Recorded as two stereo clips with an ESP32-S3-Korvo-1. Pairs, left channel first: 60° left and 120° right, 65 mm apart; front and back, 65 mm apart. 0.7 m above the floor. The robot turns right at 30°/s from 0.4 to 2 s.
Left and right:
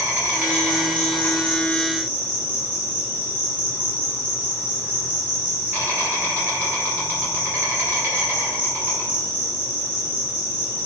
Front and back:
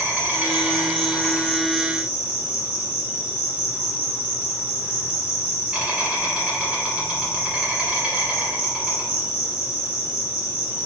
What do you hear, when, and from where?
0.0 s an insect: 175° right, 1.9 m; by 10.9 s 125° right, 1.9 m